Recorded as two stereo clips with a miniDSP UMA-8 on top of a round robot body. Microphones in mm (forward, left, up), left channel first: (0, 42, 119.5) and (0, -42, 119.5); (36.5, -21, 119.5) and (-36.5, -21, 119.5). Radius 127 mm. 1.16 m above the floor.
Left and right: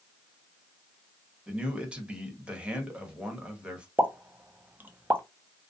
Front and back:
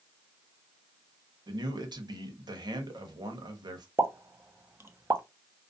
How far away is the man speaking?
About 0.9 m.